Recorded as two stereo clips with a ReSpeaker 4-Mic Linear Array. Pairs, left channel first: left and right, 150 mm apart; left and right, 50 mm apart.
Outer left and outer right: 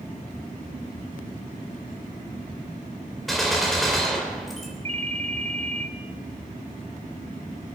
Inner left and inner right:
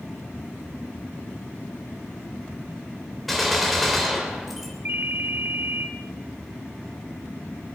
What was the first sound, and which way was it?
A gunshot, centre (ahead or behind).